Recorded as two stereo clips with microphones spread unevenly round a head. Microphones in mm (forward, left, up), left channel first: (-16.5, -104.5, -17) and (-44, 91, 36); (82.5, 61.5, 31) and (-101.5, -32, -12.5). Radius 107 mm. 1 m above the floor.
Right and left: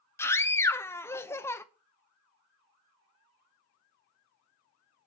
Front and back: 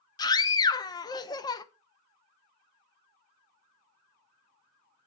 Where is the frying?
I don't hear frying.